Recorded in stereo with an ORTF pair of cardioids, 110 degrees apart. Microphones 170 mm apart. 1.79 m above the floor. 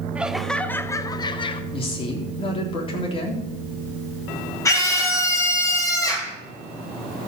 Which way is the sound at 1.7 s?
30° left.